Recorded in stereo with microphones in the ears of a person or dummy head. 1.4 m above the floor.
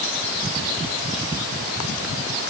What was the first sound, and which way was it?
Only background noise.